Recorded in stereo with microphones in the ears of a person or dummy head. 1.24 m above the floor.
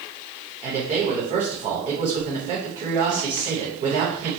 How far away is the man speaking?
About 1.2 m.